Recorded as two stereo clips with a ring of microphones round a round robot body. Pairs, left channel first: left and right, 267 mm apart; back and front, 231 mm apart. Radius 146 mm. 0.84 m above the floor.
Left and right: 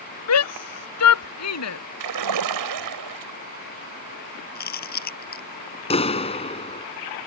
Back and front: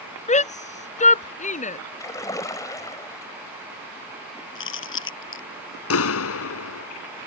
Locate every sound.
0.3 s a shout: 120° left
2.0 s a splash: 100° right
4.5 s chewing: 145° left
5.9 s a clap: 160° left